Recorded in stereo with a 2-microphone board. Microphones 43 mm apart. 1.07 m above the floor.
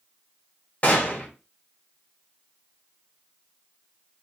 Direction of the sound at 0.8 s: 35° left (ahead or behind).